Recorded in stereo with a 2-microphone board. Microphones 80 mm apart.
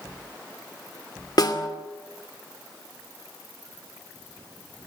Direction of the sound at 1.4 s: 60° left (ahead or behind).